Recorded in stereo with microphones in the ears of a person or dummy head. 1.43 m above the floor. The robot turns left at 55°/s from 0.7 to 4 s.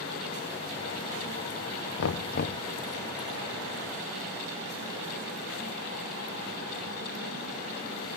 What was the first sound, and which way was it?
Knocking, 70° left.